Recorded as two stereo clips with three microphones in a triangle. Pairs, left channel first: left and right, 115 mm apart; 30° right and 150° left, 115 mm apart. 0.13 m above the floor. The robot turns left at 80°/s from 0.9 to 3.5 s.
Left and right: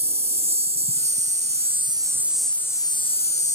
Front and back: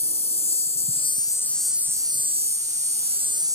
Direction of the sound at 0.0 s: 60° right.